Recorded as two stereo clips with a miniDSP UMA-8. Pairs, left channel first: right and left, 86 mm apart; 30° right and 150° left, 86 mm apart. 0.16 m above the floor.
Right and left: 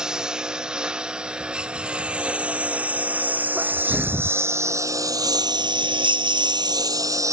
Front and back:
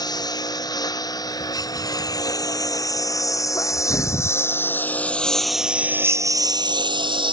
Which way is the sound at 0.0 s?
10° left.